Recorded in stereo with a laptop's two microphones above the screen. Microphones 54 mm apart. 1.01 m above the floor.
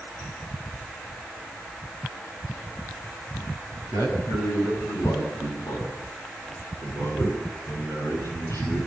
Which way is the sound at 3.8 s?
85° left.